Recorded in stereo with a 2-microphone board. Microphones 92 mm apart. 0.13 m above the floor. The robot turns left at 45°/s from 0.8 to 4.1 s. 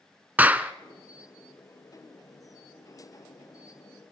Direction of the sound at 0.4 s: 15° right (ahead or behind).